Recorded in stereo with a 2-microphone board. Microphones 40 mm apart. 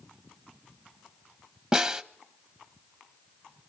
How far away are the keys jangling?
I don't hear keys jangling.